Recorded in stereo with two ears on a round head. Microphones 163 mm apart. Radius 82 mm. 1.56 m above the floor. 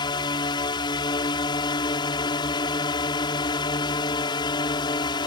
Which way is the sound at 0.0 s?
25° left (ahead or behind).